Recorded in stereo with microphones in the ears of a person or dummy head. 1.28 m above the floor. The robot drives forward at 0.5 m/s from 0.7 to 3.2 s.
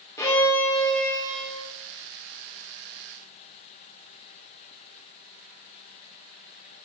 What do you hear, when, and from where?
0.2 s a violin: 20° left (ahead or behind), 3 m; by 1.7 s 15° left (ahead or behind), 3.5 m